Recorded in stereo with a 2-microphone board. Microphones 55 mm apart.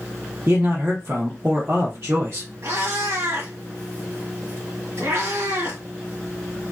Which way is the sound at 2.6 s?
60° right (ahead or behind).